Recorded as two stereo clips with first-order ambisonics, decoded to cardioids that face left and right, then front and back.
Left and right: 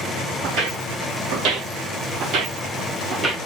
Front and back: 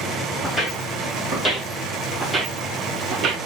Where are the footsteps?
70° right, 1.6 m; by 3.4 s 165° right, 0.8 m.